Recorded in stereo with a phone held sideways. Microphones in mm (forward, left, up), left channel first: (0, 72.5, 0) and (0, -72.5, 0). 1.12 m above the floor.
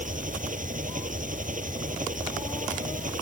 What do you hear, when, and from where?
0.0 s an engine running: 65° right (ahead or behind)